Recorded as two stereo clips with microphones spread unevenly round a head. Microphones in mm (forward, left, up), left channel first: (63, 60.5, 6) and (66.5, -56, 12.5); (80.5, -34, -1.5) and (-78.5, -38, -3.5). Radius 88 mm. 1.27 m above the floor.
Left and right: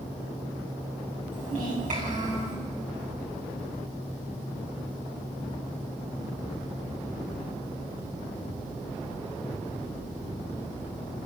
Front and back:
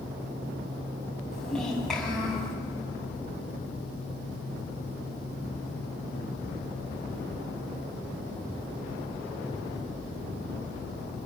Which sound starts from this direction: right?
A child speaking, at 1.3 s.